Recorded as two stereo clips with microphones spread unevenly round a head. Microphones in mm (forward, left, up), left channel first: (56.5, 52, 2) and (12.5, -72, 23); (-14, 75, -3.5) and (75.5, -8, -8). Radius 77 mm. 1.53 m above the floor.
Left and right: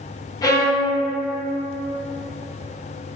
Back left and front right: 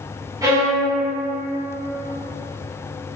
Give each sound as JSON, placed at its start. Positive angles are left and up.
{"t": 0.4, "sound": "a violin", "azimuth_deg": 10, "distance_m": 0.7}